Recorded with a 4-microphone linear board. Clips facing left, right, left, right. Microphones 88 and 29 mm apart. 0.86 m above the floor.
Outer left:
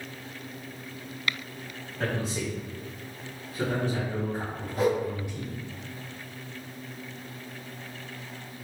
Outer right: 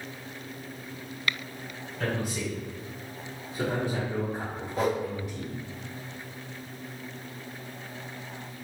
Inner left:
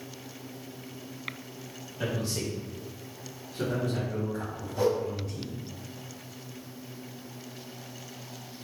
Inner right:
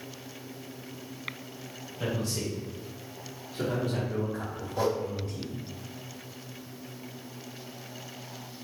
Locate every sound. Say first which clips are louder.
2.0 s a man speaking: even, even; 30° left (ahead or behind), 1.4 m; by 5.5 s 35° right (ahead or behind), 1.6 m
4.8 s a whoosh: outer left 2 dB, inner left 2 dB; 25° right (ahead or behind), 1.6 m